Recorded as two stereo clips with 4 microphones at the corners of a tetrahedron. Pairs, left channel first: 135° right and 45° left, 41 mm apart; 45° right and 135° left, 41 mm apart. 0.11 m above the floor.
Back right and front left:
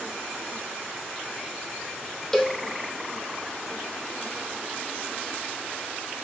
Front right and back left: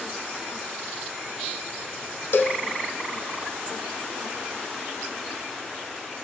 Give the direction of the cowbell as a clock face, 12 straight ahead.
2 o'clock.